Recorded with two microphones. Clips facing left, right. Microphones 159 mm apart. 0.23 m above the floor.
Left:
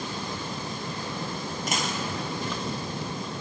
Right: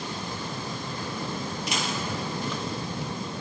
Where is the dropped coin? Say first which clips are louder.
Left 1 dB; 50° left (ahead or behind), 1.0 m.